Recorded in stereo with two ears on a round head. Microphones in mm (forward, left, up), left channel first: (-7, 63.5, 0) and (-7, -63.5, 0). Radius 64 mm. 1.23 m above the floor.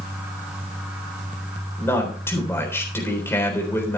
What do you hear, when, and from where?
1.8 s a man speaking: 15° left (ahead or behind), 4 m